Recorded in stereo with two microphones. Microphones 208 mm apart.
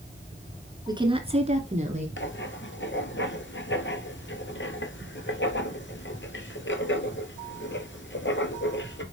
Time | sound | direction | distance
0.9 | a woman speaking | 20° right (ahead or behind) | 1.5 m
2.2 | writing | 65° left (ahead or behind) | 0.8 m